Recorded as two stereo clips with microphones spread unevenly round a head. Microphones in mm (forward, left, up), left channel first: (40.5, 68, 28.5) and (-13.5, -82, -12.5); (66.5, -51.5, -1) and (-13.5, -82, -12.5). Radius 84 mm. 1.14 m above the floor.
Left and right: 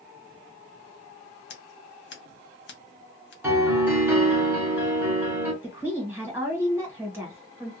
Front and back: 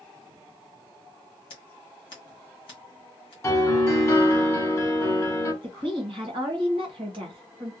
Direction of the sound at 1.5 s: 55° left.